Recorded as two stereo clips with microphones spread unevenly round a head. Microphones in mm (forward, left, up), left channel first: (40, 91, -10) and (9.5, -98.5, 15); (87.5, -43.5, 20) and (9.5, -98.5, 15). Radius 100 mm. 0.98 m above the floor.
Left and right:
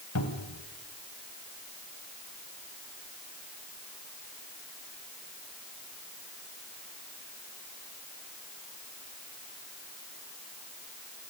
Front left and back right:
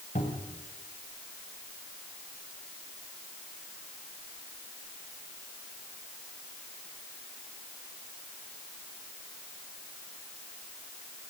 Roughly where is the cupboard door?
Left.